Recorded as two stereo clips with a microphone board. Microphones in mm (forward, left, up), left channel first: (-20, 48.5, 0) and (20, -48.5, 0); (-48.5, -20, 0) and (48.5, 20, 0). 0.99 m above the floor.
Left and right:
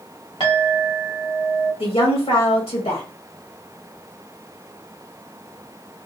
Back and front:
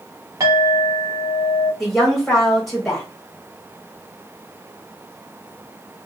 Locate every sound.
0.4 s a clink: 80° left, 1.6 m
1.8 s a woman speaking: 115° left, 1.8 m